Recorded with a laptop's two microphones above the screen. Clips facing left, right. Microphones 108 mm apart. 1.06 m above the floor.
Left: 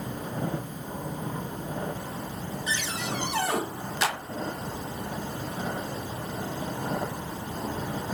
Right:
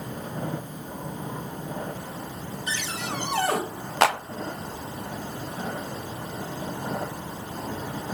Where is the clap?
65° right (ahead or behind), 0.9 m.